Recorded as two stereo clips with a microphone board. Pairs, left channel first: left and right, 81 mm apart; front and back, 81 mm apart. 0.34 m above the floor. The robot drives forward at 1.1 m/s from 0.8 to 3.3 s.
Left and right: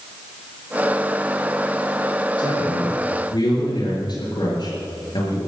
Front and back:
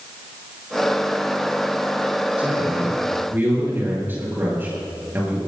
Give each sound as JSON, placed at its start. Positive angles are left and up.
{"t": 2.4, "sound": "a man speaking", "azimuth_deg": 105, "distance_m": 6.5}